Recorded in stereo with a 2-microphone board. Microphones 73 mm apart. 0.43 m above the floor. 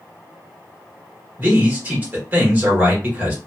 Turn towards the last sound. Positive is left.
turn(degrees=-25)  # may be behind; listen again after turning